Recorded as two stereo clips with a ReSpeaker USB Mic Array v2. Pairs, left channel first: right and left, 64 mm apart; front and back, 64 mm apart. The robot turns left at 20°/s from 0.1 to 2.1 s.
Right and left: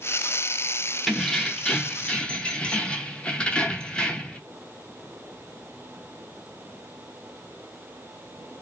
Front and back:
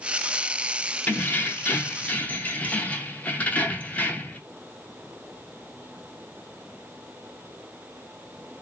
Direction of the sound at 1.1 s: 15° right.